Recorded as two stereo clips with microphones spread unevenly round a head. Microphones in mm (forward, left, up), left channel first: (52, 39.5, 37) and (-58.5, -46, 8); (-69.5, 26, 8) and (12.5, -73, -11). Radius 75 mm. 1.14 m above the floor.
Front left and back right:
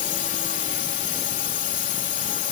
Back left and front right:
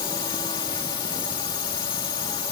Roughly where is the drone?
Left.